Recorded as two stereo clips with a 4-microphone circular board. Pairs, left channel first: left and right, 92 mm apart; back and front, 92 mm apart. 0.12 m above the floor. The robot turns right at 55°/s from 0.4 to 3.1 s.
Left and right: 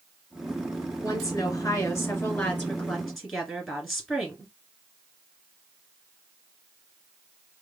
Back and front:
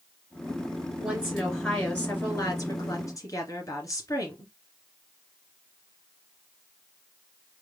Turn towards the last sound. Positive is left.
turn(degrees=180)